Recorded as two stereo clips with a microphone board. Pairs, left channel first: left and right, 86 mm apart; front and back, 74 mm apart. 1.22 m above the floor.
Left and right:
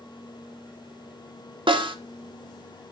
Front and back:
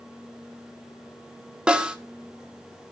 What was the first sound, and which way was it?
A snare drum, 105° right.